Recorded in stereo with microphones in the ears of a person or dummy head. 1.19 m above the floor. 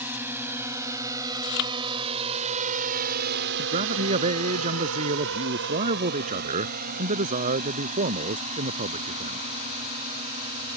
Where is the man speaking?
40° right (ahead or behind).